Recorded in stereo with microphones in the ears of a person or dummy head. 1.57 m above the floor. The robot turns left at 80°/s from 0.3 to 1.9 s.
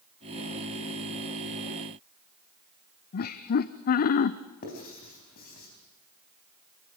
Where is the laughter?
50° left (ahead or behind), 0.6 m.